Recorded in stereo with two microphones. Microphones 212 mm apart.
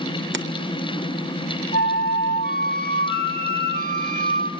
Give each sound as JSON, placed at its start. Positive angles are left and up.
{"t": 0.3, "sound": "keys jangling", "side_deg": -60, "distance_m": 0.8}
{"t": 1.7, "sound": "a flute", "side_deg": 45, "distance_m": 1.6}